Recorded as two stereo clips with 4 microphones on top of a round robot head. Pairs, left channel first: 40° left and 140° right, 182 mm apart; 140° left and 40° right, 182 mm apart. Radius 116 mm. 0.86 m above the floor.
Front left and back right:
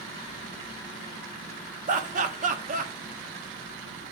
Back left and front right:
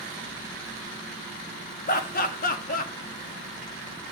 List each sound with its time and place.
1.9 s laughter: 175° left, 1.6 m